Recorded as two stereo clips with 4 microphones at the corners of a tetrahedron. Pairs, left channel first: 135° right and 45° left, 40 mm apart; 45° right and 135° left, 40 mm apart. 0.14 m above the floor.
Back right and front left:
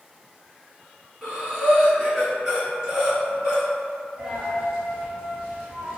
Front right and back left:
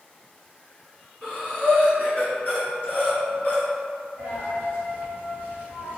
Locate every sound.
1.2 s breathing: 30° right, 1.6 m
4.2 s a dropped coin: 25° right, 1.4 m